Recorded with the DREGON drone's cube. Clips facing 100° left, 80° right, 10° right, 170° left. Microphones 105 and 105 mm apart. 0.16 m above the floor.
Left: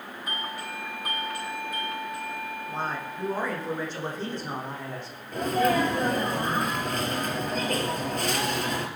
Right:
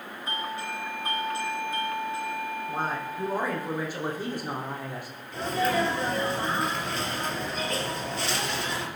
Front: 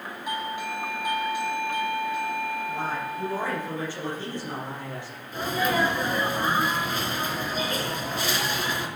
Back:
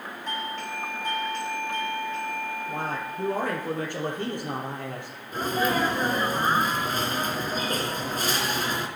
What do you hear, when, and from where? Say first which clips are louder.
0.3 s a doorbell: right 3 dB, front 2 dB; 75° right, 1.7 m
2.7 s a man speaking: even, front 1 dB; 160° right, 5 m
5.3 s a sneeze: left 3 dB, even; 130° left, 3 m